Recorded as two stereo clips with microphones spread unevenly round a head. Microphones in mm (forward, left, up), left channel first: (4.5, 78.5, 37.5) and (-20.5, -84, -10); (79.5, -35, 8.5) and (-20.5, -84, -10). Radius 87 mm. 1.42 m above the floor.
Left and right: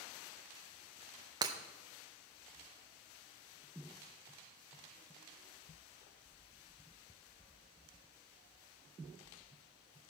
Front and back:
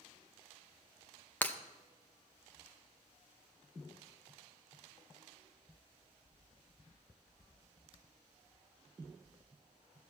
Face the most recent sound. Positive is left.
turn(degrees=-25)